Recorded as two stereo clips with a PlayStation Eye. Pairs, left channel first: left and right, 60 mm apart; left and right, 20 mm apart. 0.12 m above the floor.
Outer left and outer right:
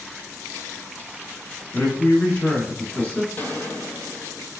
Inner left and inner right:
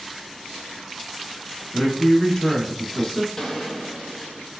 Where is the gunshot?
25° left (ahead or behind), 0.7 m.